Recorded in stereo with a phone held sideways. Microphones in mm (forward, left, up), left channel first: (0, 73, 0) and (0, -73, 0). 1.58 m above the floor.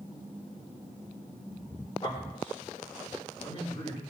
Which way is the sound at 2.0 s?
40° left (ahead or behind).